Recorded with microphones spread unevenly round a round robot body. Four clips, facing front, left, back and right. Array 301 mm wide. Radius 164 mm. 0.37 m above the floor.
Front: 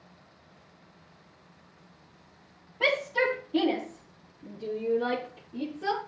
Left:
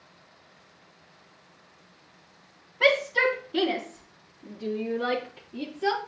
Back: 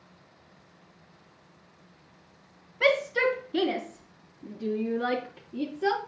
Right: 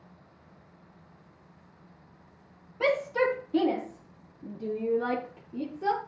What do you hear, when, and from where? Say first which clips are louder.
2.8 s a shout: left 2 dB, back 3 dB; 100° right, 4 m; by 6.0 s 135° right, 4 m